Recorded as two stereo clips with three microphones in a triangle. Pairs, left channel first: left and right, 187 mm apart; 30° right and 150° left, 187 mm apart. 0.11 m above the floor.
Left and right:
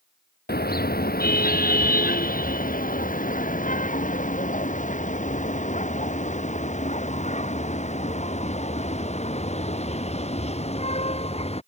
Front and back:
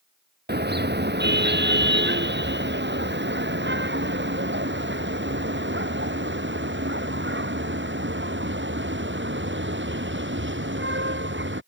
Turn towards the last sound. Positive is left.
turn(degrees=145)